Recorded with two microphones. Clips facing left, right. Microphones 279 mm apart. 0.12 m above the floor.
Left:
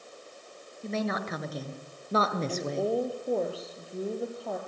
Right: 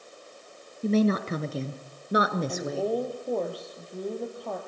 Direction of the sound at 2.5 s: 5° left (ahead or behind).